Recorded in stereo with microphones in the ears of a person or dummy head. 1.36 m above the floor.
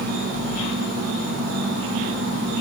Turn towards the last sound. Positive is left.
turn(degrees=-55)  # may be behind; listen again after turning